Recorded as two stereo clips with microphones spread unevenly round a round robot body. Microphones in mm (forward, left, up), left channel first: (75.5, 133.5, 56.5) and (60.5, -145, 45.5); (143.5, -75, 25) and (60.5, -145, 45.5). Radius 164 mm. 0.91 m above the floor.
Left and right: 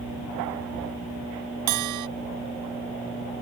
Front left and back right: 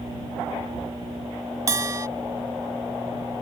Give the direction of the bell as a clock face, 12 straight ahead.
3 o'clock.